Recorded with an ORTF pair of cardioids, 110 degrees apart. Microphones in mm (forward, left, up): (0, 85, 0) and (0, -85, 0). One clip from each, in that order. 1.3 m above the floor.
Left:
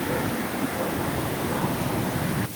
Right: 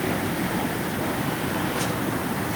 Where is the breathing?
I don't hear breathing.